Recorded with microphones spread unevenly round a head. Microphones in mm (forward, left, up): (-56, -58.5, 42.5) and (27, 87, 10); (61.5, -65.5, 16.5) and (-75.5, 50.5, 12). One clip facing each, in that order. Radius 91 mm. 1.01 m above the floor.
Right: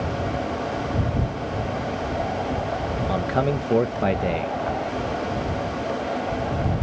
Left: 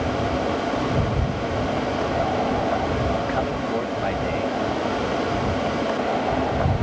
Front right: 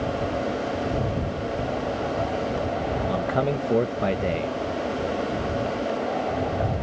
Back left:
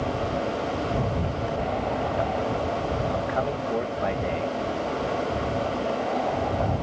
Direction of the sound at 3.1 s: 75° right.